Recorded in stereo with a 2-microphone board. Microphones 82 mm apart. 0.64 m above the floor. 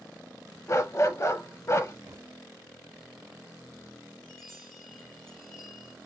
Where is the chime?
5° left (ahead or behind), 2 m.